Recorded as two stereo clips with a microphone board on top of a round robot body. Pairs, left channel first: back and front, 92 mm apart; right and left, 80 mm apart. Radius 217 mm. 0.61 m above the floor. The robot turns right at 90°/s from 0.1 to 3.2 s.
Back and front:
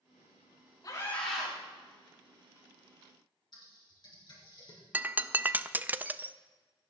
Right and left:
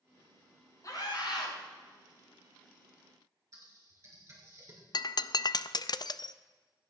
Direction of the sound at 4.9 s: 70° right.